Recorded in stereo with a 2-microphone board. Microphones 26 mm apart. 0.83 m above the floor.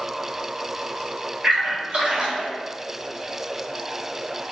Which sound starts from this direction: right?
A splash, at 1.4 s.